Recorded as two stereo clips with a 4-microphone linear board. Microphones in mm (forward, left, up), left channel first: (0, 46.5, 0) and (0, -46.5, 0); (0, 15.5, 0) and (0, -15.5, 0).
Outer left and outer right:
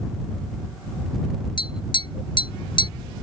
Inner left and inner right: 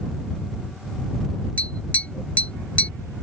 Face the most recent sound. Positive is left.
turn(degrees=60)  # may be behind; listen again after turning